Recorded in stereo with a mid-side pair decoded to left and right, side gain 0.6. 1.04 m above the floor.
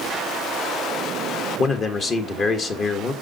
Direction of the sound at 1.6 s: 40° left.